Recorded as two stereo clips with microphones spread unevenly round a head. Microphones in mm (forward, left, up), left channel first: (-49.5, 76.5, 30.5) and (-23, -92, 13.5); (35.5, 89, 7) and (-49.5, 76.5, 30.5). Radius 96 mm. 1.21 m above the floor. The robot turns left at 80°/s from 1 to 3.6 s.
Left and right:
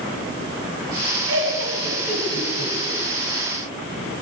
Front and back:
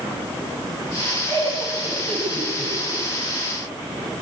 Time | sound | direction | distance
1.3 | laughter | 65° right | 9 m